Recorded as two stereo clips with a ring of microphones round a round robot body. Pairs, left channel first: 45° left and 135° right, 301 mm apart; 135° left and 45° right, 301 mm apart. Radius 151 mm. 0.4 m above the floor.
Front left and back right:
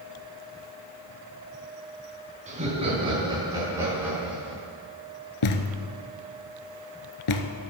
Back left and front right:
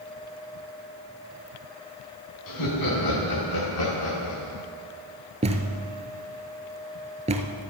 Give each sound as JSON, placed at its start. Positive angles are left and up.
{"t": 2.5, "sound": "laughter", "azimuth_deg": 155, "distance_m": 4.5}
{"t": 5.4, "sound": "a thud", "azimuth_deg": 25, "distance_m": 1.0}